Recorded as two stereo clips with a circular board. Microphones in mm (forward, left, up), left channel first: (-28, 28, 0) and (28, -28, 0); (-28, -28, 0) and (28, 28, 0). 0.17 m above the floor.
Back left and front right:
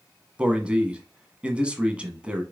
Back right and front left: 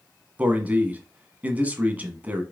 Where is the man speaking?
10° left, 1.1 m.